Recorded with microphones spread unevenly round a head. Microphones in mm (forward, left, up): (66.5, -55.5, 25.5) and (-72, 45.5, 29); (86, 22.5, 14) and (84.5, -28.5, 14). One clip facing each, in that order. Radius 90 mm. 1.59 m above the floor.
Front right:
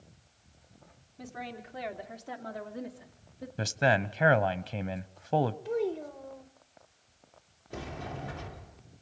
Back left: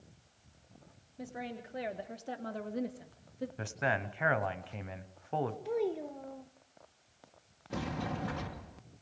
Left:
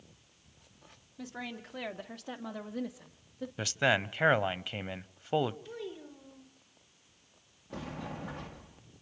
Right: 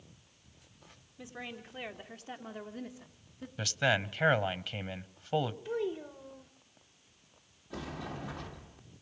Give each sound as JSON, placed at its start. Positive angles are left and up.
{"t": 1.2, "sound": "a woman speaking", "azimuth_deg": 70, "distance_m": 3.0}
{"t": 3.6, "sound": "a man speaking", "azimuth_deg": 15, "distance_m": 1.0}
{"t": 5.7, "sound": "a child speaking", "azimuth_deg": -135, "distance_m": 0.8}
{"t": 7.7, "sound": "a sliding door", "azimuth_deg": 150, "distance_m": 1.8}